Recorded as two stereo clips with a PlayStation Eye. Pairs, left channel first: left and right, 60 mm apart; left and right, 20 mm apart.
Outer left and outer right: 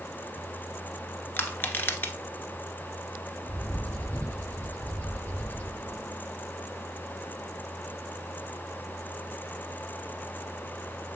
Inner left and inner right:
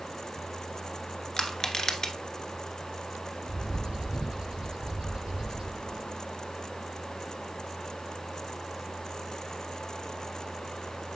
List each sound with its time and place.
1.4 s crushing: 35° left (ahead or behind), 1.2 m
3.5 s a bird: 45° right (ahead or behind), 4.5 m